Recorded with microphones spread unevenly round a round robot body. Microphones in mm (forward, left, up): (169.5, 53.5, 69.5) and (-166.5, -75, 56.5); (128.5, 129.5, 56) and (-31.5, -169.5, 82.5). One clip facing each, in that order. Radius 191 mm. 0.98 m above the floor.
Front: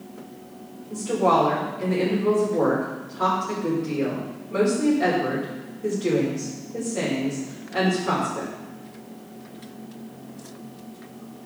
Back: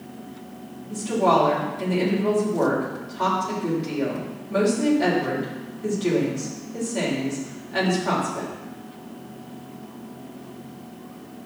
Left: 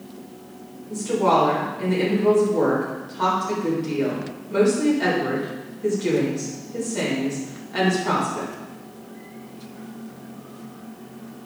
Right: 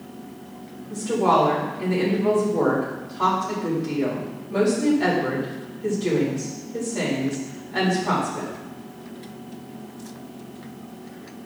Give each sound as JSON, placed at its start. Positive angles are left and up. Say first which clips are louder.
{"t": 0.9, "sound": "a woman speaking", "louder": "even, left 1 dB", "azimuth_deg": 125, "distance_m": 4.0}